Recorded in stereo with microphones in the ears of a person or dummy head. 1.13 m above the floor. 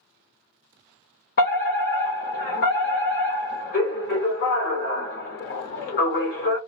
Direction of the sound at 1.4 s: 40° left (ahead or behind).